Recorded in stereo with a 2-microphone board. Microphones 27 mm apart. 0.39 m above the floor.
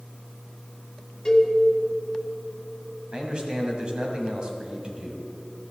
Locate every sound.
1.2 s a cowbell: 25° left (ahead or behind), 2 m
3.1 s a man speaking: 40° right (ahead or behind), 2 m